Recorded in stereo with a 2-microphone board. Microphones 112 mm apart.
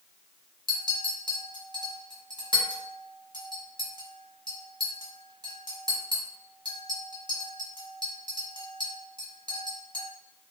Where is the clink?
40° right (ahead or behind), 0.8 m.